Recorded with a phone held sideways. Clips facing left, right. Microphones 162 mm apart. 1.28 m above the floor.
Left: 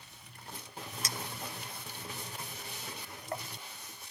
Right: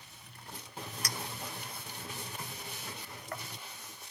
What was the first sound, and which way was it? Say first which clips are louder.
A clink: left 1 dB; 25° left (ahead or behind).